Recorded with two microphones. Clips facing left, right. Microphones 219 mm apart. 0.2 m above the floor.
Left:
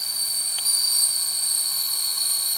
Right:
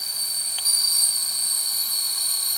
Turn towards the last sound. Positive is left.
No sound to turn to.